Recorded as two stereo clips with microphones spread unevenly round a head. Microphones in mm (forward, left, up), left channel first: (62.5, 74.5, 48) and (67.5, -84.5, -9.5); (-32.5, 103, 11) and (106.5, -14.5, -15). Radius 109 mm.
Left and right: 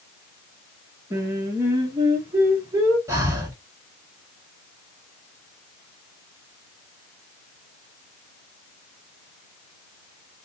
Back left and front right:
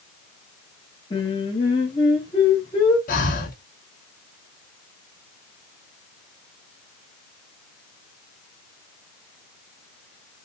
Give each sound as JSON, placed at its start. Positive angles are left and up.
{"t": 1.1, "sound": "singing", "azimuth_deg": -150, "distance_m": 1.2}
{"t": 3.1, "sound": "breathing", "azimuth_deg": -170, "distance_m": 0.9}